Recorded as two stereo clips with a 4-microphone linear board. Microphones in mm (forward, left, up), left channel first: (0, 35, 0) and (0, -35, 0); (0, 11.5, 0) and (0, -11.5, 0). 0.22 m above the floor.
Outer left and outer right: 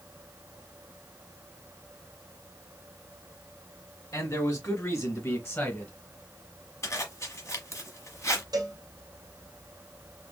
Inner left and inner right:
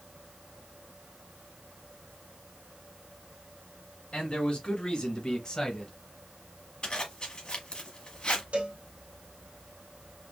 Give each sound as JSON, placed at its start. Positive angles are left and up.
{"t": 4.1, "sound": "a man speaking", "side_deg": 55, "distance_m": 2.5}
{"t": 6.8, "sound": "a zipper", "side_deg": 45, "distance_m": 1.2}
{"t": 8.5, "sound": "a cowbell", "side_deg": -70, "distance_m": 1.5}